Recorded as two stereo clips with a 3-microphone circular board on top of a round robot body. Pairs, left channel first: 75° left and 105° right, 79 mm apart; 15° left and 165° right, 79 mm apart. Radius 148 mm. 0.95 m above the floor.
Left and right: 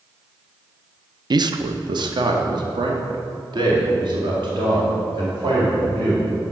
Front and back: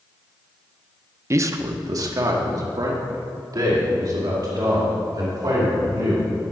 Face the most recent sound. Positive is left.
turn(degrees=-125)